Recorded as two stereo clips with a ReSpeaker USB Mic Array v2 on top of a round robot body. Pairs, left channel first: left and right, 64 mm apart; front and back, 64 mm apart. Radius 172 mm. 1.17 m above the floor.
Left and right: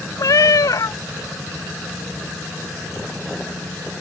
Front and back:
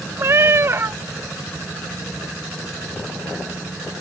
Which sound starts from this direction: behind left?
A cat meowing, at 0.2 s.